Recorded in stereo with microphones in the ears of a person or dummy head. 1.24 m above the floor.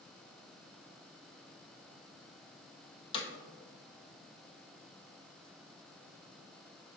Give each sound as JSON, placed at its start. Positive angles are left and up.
{"t": 3.1, "sound": "hammering", "side_deg": 30, "distance_m": 1.0}